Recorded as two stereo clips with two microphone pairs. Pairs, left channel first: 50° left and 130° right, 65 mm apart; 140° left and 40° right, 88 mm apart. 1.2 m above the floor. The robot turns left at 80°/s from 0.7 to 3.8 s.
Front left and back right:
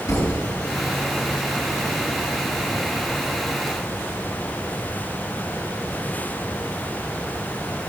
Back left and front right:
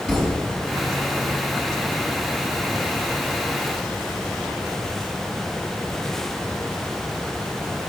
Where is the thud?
50° left, 4.5 m.